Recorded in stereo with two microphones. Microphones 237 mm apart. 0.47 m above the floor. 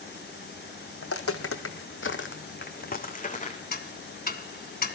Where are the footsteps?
70° left (ahead or behind), 1.3 m; by 3.6 s 30° left (ahead or behind), 1.9 m.